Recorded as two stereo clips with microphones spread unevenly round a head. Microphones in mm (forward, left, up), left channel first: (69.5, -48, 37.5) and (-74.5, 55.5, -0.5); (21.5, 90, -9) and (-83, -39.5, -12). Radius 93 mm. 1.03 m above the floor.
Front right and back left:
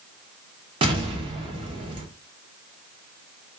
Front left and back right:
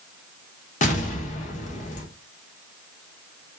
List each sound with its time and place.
0.8 s an explosion: 90° left, 0.7 m